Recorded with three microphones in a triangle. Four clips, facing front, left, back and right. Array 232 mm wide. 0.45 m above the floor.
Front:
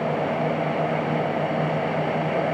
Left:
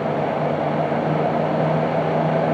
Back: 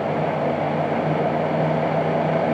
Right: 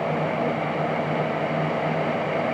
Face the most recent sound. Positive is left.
No sound to turn to.